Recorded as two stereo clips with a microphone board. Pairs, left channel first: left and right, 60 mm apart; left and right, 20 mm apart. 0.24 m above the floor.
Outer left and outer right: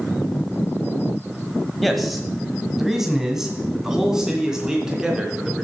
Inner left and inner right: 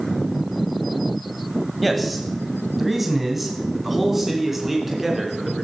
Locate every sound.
1.8 s a man speaking: centre (ahead or behind), 1.3 m; by 5.6 s 10° right (ahead or behind), 3.5 m